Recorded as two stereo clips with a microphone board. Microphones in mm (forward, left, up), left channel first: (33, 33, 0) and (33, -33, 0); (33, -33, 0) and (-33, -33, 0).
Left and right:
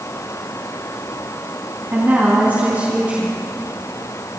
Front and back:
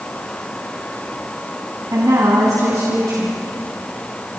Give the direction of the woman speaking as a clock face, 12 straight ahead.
5 o'clock.